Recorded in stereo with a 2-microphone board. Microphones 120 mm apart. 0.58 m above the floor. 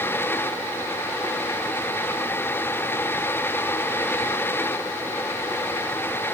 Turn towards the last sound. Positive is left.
No sound to turn to.